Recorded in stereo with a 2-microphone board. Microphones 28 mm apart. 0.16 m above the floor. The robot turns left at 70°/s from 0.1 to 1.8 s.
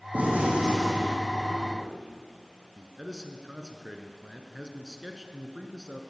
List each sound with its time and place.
0.1 s a gunshot: 100° right, 4 m; by 1.9 s 145° left, 4 m
2.8 s a man speaking: 25° right (ahead or behind), 1.6 m